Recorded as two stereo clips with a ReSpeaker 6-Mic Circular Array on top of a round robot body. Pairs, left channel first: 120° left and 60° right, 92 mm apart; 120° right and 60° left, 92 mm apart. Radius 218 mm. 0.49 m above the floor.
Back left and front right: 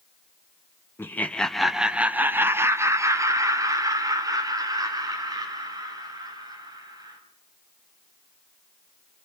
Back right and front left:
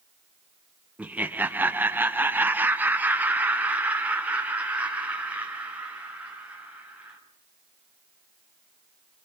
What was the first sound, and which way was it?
Laughter, 115° left.